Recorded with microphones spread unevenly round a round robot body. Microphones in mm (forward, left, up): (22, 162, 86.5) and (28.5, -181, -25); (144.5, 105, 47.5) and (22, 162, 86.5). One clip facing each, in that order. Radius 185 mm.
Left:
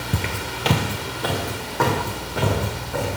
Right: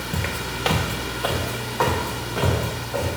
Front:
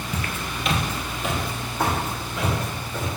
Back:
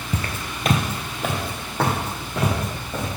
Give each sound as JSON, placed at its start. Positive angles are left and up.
{"t": 0.1, "sound": "footsteps", "azimuth_deg": 125, "distance_m": 0.6}